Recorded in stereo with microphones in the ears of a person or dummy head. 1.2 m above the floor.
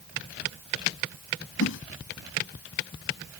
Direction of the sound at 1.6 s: 85° left.